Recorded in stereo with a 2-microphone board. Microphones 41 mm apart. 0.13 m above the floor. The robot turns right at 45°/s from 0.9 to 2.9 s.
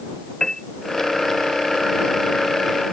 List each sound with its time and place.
0.4 s a piano: 15° left (ahead or behind)